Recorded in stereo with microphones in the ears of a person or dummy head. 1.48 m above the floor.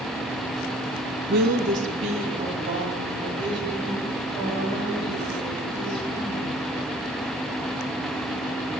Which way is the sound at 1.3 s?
60° right (ahead or behind).